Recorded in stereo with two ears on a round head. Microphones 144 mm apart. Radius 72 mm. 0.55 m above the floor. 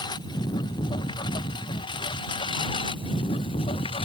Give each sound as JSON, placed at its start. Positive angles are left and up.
{"t": 0.0, "sound": "a lawn mower", "side_deg": 30}